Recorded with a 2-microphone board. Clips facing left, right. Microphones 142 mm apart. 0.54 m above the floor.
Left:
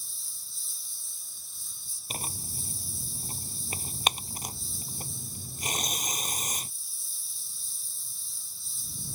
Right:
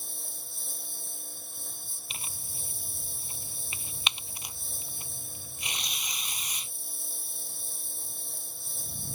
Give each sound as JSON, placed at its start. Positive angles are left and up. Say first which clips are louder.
{"t": 0.0, "sound": "a lawn mower", "louder": "right 12 dB", "side_deg": -60}
{"t": 2.1, "sound": "tearing paper", "louder": "left 8 dB", "side_deg": 45}